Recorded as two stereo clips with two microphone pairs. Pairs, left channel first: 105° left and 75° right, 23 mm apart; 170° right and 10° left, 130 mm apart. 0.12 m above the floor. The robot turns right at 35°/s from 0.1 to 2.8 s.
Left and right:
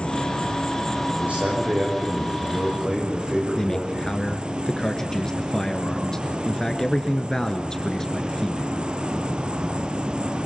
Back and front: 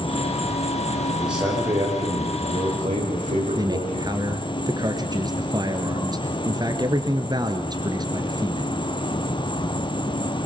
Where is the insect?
145° left, 1.0 m; by 10.5 s 120° right, 1.0 m.